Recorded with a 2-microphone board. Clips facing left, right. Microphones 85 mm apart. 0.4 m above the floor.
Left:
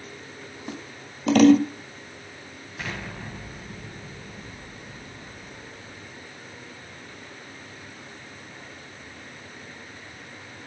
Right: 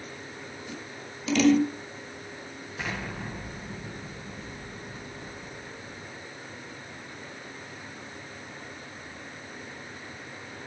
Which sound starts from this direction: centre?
An explosion, at 2.8 s.